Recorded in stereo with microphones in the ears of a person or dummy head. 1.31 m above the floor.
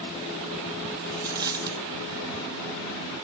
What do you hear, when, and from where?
1.0 s a dropped coin: 20° right (ahead or behind), 1.4 m